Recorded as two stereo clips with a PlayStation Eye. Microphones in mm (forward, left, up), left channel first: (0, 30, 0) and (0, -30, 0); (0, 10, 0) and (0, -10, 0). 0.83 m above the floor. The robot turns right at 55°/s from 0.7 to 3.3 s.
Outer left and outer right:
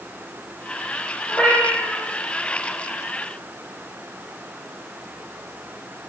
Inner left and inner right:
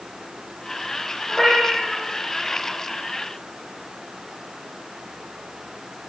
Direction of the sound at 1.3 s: 15° left.